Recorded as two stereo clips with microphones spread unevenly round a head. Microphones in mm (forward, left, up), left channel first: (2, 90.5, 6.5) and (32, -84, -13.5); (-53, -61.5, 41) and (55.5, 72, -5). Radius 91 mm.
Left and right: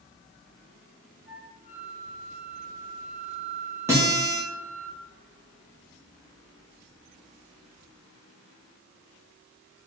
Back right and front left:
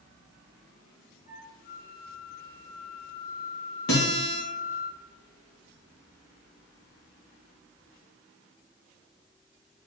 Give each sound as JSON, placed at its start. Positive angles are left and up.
{"t": 1.3, "sound": "a flute", "azimuth_deg": -170, "distance_m": 3.0}
{"t": 3.9, "sound": "a guitar", "azimuth_deg": -155, "distance_m": 3.0}